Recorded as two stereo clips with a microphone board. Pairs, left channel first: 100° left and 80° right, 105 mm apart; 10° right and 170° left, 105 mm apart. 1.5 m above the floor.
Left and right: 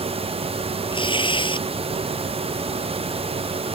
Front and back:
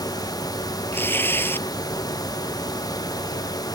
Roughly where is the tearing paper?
Ahead left.